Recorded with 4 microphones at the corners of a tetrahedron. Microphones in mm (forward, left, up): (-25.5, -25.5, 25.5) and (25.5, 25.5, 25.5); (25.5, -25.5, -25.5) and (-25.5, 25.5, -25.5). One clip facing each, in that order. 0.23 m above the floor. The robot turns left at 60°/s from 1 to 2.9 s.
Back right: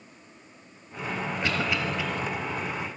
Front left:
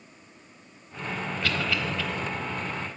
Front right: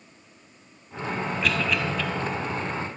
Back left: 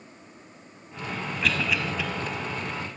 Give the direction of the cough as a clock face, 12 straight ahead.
5 o'clock.